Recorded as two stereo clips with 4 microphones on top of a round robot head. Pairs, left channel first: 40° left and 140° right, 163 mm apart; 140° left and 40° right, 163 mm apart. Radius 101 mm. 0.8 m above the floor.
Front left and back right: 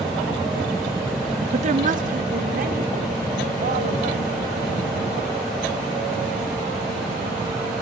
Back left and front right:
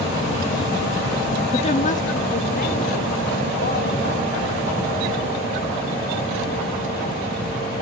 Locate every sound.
1.5 s a woman speaking: 175° right, 0.6 m; by 4.3 s straight behind, 4.5 m